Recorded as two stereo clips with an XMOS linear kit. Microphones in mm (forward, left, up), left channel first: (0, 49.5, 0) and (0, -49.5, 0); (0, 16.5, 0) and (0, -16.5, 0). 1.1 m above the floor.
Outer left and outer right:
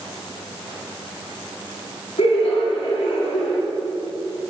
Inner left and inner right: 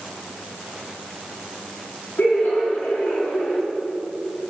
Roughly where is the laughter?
Left.